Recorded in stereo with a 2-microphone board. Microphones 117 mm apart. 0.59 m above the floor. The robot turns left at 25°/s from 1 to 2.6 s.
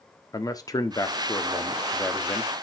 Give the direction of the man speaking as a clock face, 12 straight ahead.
10 o'clock.